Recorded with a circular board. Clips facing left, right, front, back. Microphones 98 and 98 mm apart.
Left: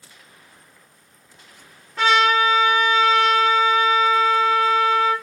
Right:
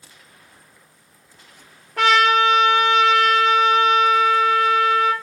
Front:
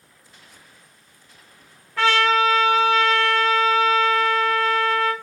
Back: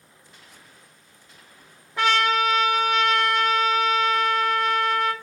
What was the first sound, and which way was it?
A trumpet, 110° right.